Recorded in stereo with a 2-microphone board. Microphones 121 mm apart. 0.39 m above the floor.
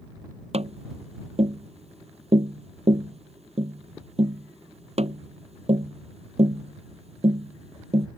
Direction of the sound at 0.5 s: 60° right (ahead or behind).